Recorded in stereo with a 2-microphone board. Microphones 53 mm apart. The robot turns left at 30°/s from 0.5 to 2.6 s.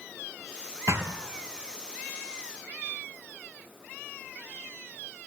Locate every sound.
0.9 s a thud: 70° right (ahead or behind), 1.3 m; by 1.1 s 75° right (ahead or behind), 1.3 m